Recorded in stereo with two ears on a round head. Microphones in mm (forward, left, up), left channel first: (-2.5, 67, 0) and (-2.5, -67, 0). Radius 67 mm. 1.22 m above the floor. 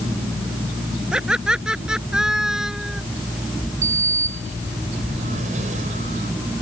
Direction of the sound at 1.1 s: 5° right (ahead or behind).